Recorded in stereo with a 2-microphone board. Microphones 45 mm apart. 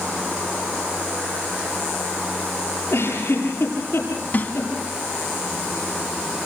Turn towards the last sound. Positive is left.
turn(degrees=40)  # may be behind; listen again after turning